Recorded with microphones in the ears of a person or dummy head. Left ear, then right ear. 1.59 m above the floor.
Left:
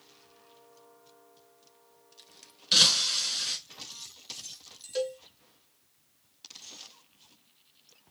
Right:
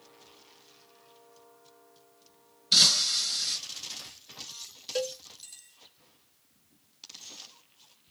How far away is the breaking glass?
About 1.5 m.